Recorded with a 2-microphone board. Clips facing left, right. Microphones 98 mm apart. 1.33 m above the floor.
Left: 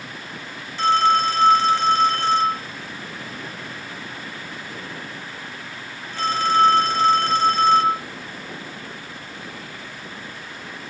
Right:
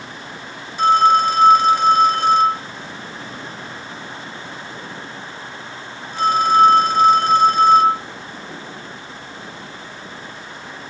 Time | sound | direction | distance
0.8 | a phone ringing | 15° right (ahead or behind) | 1.0 m